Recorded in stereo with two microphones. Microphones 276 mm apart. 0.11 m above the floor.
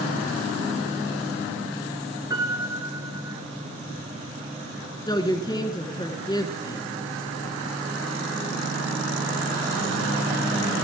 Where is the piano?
15° right (ahead or behind), 1.4 m.